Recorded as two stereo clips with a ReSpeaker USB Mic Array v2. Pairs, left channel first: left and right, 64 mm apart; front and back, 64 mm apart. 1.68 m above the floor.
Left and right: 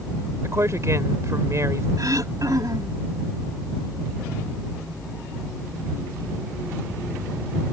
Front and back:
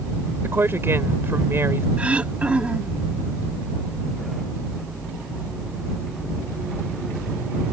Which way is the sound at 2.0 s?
110° right.